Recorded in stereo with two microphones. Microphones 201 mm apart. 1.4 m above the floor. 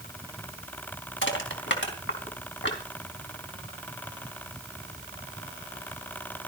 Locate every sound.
1.2 s crushing: 75° left (ahead or behind), 4 m